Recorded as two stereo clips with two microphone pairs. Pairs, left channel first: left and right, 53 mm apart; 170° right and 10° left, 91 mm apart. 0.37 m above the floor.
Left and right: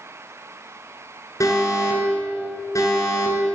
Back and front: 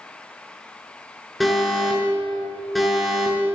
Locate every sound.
1.4 s an alarm: 100° left, 7.5 m